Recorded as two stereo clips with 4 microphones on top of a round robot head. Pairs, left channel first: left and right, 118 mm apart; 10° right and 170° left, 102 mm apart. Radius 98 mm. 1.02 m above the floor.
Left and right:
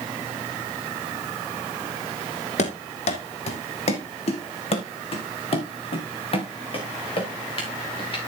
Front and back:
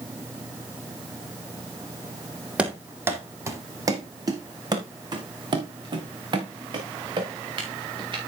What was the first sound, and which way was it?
Running footsteps, 95° left.